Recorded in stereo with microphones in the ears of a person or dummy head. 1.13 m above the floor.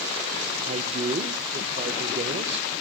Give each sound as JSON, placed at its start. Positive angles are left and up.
{"t": 0.6, "sound": "a man speaking", "side_deg": -30, "distance_m": 1.2}